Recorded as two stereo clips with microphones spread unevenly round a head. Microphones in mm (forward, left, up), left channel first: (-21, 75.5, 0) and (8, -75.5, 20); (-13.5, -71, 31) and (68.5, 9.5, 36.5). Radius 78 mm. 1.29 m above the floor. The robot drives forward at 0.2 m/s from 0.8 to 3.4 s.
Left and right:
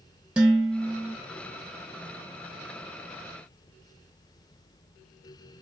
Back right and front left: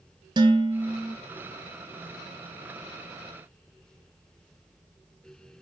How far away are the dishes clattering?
About 0.8 m.